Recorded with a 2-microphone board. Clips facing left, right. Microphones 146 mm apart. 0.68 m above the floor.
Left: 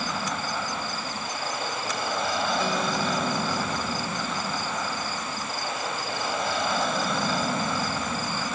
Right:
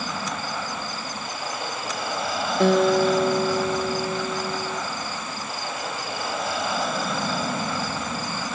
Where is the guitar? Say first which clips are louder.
Right 9 dB; 65° right (ahead or behind).